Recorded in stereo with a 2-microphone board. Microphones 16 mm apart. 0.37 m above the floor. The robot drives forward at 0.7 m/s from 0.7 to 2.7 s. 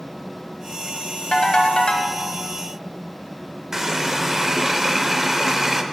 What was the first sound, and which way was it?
A ringtone, 60° left (ahead or behind).